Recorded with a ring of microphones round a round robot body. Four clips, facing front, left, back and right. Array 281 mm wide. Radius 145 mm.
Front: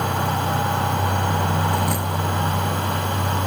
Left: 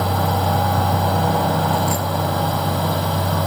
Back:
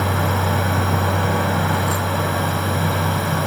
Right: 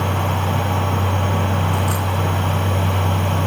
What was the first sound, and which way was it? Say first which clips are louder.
A drone: left 2 dB, back 2 dB; 115° left.